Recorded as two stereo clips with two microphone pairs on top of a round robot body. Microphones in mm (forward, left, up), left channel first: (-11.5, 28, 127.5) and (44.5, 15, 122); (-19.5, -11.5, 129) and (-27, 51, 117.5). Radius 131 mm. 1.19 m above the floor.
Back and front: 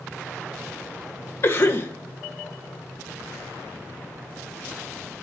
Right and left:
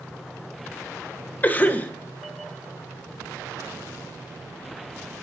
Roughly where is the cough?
Behind right.